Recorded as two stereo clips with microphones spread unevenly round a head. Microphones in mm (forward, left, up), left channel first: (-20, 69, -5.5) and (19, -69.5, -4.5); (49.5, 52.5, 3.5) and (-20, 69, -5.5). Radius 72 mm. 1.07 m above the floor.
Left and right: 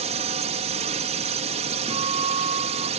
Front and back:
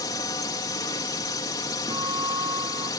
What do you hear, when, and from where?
0.0 s a drone: 45° right
1.9 s a guitar: 130° right